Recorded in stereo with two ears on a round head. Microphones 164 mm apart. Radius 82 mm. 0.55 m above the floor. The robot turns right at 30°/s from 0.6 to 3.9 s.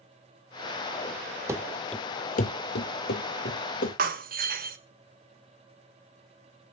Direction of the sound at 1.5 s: 15° right (ahead or behind).